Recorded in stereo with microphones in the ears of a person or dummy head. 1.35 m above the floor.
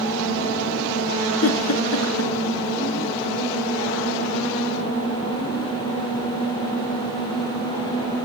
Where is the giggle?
80° left, 2 m.